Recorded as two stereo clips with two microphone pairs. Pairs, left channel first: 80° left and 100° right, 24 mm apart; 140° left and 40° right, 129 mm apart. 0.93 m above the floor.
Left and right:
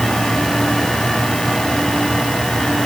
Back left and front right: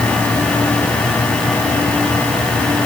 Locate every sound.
Only background noise.